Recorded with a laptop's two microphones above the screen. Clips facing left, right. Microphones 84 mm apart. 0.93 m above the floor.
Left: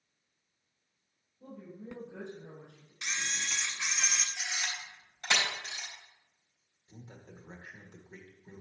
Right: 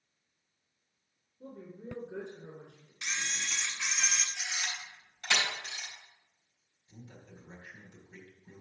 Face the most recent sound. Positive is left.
turn(degrees=35)  # may be behind; listen again after turning